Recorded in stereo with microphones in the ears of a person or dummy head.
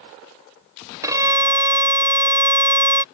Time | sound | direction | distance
1.0 | a violin | 15° right (ahead or behind) | ?